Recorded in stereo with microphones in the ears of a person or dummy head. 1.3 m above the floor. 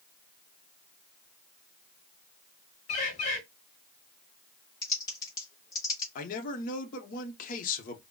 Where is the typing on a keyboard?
25° left (ahead or behind), 0.6 m.